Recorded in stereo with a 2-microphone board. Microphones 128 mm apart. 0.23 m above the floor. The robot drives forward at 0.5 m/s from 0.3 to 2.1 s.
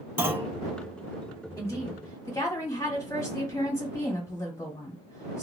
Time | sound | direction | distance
0.2 | a clunk | 15° right (ahead or behind) | 0.8 m
1.6 | a woman speaking | 25° left (ahead or behind) | 1.6 m